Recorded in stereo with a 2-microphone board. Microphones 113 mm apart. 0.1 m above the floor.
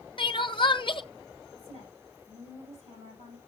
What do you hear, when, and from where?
0.2 s crying: 45° left (ahead or behind), 0.6 m
1.5 s a woman speaking: 75° right (ahead or behind), 7 m